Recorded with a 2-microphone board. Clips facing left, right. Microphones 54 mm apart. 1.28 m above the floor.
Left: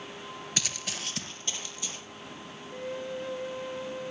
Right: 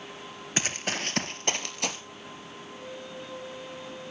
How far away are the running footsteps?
About 1.4 m.